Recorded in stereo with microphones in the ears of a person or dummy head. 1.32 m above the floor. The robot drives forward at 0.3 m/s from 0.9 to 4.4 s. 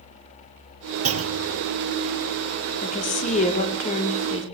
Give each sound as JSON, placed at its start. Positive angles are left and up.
{"t": 1.1, "sound": "a clunk", "side_deg": -70, "distance_m": 1.1}
{"t": 2.8, "sound": "a woman speaking", "side_deg": 40, "distance_m": 3.0}